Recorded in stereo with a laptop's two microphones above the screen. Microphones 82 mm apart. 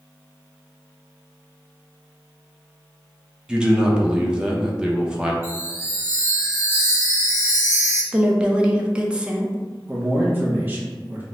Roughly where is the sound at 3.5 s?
Centre.